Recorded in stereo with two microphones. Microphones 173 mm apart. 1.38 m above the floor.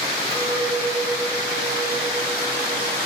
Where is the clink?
40° left (ahead or behind), 2 m.